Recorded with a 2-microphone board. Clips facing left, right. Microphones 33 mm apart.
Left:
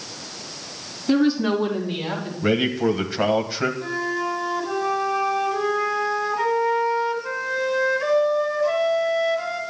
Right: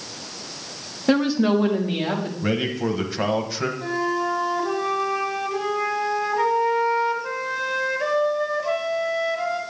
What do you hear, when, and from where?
1.1 s a woman speaking: 70° right (ahead or behind), 1.8 m; by 2.3 s 85° right, 3.5 m
2.4 s a man speaking: 10° left (ahead or behind), 1.1 m
3.8 s a flute: 20° right (ahead or behind), 2 m